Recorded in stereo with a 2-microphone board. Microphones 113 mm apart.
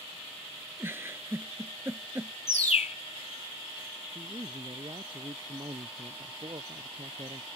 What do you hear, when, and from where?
0.8 s a giggle: 20° right (ahead or behind)
2.5 s a bird: 75° left (ahead or behind)
4.2 s a man speaking: 45° right (ahead or behind)